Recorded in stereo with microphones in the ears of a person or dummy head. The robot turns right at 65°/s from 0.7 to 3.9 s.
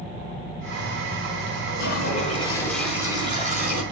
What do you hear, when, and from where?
1.7 s a toilet flushing: 110° left, 4.5 m; by 3.8 s 115° right, 4.5 m